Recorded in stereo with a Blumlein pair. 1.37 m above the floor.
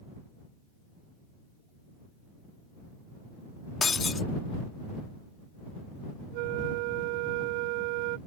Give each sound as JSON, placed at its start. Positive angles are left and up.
{"t": 3.8, "sound": "breaking glass", "azimuth_deg": 15}
{"t": 6.3, "sound": "a flute", "azimuth_deg": -45}